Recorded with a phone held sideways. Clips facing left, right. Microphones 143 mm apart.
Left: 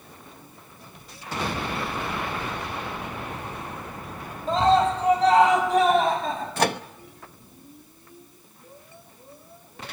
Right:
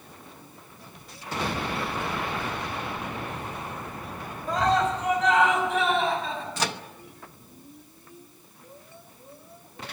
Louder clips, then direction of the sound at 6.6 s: Left 9 dB; 55° left (ahead or behind).